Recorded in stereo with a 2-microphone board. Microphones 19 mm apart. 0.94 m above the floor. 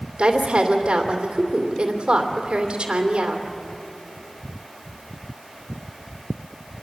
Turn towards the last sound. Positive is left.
turn(degrees=-65)  # may be behind; listen again after turning